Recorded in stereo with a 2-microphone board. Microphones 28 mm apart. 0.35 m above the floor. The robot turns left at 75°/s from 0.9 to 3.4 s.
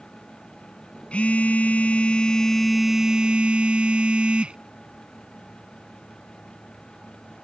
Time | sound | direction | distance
1.1 | a phone buzzing | 120° left | ?